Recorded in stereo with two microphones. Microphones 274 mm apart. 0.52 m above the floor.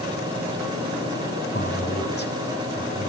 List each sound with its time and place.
1.5 s a man speaking: 40° left (ahead or behind), 5 m; by 3.1 s 30° left (ahead or behind), 5 m